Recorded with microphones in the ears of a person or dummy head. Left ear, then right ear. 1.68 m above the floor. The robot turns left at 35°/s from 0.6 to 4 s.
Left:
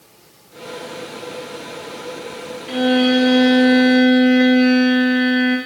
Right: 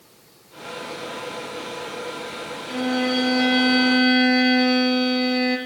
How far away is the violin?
About 3 m.